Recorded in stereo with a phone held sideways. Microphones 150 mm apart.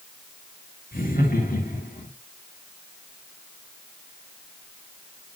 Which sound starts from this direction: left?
Laughter, at 0.9 s.